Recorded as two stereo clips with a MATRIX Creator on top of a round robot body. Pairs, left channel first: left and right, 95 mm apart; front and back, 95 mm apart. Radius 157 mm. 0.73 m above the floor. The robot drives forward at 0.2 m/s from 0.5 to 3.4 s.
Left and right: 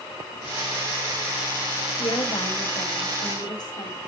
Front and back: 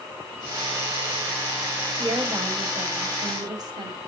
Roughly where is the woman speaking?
Behind left.